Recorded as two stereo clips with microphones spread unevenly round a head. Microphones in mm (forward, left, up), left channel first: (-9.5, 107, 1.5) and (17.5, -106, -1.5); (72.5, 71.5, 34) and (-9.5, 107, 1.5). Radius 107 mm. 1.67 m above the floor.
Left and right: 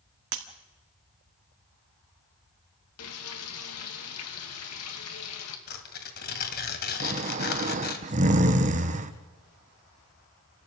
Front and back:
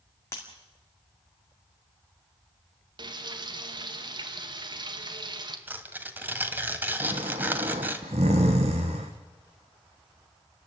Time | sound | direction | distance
0.3 | breaking glass | 75° right | 1.8 m
3.0 | frying | 120° left | 2.5 m
5.7 | tearing paper | 75° left | 2 m
7.0 | snoring | 140° right | 1.1 m